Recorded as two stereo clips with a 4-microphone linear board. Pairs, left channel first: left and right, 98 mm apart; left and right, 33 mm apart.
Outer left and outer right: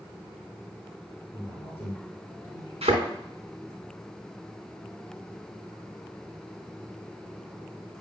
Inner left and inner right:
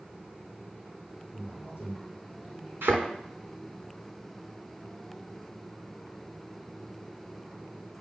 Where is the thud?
90° right, 3.5 m.